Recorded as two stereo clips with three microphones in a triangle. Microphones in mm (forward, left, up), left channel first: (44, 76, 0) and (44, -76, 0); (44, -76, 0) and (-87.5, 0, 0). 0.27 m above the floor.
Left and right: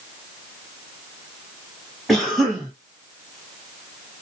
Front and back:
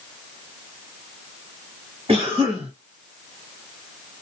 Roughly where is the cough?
Behind.